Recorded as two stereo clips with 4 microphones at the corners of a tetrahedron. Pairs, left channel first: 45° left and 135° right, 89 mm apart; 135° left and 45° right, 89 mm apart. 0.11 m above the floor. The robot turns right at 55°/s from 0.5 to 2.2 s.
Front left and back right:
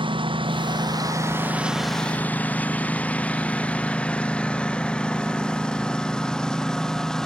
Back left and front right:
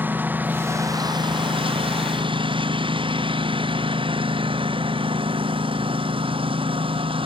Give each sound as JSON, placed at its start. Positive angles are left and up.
{"t": 0.0, "sound": "a lawn mower", "azimuth_deg": -115}